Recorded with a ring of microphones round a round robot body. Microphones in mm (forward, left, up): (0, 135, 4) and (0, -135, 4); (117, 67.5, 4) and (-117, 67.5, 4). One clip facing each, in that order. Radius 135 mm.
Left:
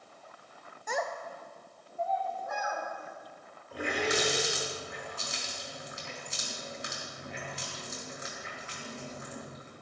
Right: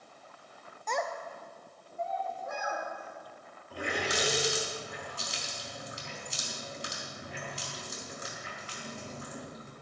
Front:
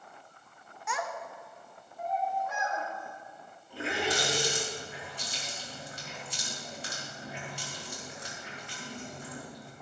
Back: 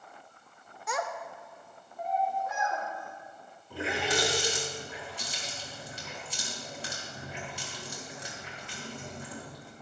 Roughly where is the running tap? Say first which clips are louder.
Left 3 dB, back 1 dB; behind right.